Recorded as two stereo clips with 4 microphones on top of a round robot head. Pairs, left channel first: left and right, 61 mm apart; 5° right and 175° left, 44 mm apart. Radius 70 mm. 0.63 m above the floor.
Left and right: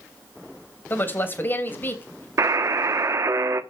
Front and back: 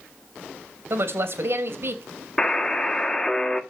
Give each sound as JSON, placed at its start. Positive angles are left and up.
{"t": 0.9, "sound": "a woman speaking", "azimuth_deg": 145, "distance_m": 3.0}
{"t": 2.4, "sound": "a buzzer", "azimuth_deg": -80, "distance_m": 1.3}